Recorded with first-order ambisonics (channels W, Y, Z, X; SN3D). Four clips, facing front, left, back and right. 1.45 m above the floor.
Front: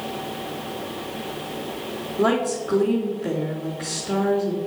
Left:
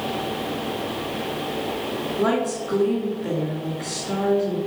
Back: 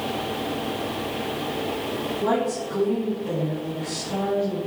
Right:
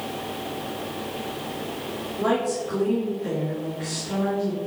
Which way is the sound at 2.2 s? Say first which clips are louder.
Even, front 4 dB; 15° left.